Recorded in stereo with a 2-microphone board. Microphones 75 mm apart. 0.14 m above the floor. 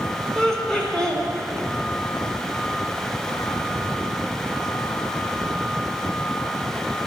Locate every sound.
0.3 s laughter: 10° left (ahead or behind), 1.0 m